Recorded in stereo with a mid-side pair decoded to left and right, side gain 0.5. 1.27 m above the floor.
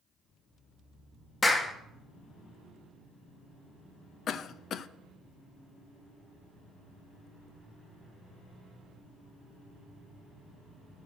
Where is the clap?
25° left, 1.9 m.